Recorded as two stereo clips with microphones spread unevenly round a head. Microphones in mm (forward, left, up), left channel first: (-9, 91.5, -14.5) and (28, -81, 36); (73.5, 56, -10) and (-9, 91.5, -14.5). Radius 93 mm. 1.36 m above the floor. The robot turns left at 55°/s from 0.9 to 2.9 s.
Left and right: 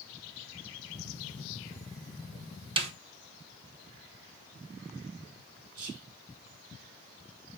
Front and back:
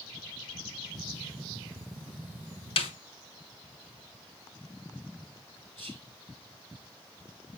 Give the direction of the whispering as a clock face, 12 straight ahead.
3 o'clock.